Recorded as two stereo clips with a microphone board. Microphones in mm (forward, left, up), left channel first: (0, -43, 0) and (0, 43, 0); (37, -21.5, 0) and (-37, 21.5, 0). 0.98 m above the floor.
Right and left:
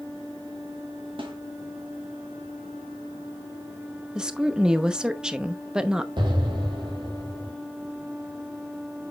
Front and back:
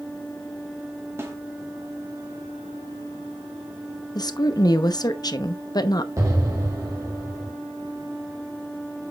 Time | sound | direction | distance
1.2 | a snare drum | 90° left | 1.8 m
4.2 | a woman speaking | 10° left | 0.8 m
6.2 | an explosion | 105° left | 2.5 m